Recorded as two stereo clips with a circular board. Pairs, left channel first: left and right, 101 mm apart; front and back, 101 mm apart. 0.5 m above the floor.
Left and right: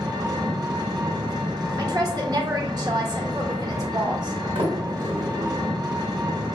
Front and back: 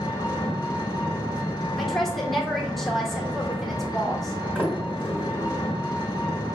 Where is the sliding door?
105° right, 1.8 m.